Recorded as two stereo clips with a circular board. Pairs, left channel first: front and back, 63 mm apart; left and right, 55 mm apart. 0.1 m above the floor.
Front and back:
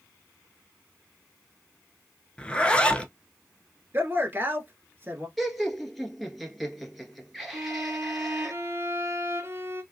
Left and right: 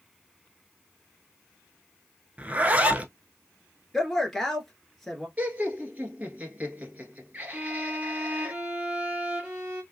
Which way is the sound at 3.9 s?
170° left.